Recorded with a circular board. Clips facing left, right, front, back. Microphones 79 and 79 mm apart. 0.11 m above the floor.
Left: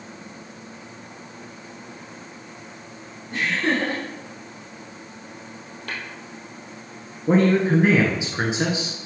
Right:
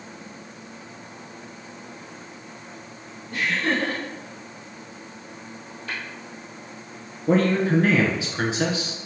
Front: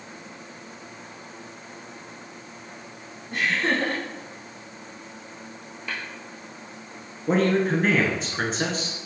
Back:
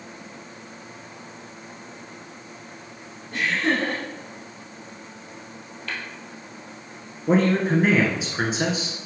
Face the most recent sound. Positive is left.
turn(degrees=105)